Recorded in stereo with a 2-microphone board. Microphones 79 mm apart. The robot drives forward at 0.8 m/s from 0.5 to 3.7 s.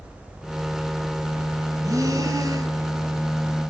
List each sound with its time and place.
1.8 s breathing: 45° right (ahead or behind), 2.5 m; by 2.8 s 50° right (ahead or behind), 2.5 m